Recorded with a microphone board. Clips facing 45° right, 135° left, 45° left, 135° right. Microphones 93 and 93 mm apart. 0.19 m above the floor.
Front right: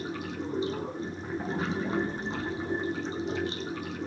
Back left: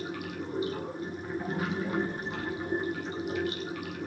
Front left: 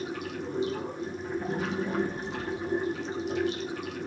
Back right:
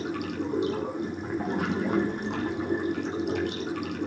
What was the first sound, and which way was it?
Running water, 110° right.